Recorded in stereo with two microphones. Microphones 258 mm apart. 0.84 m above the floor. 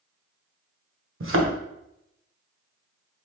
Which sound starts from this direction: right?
A thud, at 1.2 s.